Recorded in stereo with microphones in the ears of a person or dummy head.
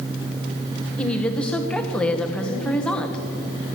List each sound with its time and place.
1.0 s a woman speaking: 5° left (ahead or behind), 1.1 m